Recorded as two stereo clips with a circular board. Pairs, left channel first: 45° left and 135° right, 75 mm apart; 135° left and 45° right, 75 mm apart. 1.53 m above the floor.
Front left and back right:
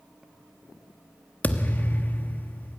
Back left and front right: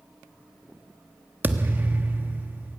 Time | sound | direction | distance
1.4 | a thud | 5° right | 1.1 m